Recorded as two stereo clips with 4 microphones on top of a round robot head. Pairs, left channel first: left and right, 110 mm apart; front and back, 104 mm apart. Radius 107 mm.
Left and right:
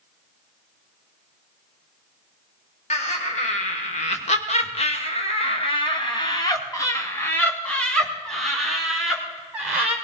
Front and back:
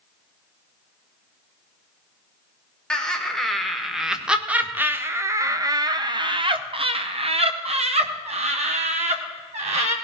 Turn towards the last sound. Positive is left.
turn(degrees=-170)